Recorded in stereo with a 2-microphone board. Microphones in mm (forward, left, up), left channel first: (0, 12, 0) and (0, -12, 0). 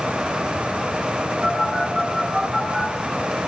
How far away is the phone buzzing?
About 2.5 m.